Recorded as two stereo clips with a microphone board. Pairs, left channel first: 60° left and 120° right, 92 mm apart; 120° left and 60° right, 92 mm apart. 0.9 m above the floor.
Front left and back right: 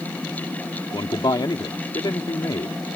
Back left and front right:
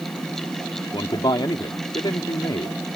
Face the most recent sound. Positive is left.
turn(degrees=90)